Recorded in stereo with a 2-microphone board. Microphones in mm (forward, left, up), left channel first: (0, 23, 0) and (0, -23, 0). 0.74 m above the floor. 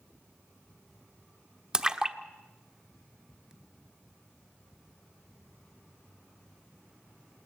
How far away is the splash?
About 1.0 m.